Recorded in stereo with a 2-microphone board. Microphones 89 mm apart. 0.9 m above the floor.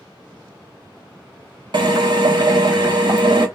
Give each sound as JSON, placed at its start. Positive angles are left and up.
{"t": 1.7, "sound": "a drill", "side_deg": -60, "distance_m": 0.8}